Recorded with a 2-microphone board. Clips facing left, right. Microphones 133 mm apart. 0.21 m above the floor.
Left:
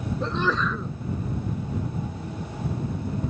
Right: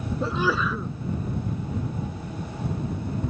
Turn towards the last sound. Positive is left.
turn(degrees=-10)  # may be behind; listen again after turning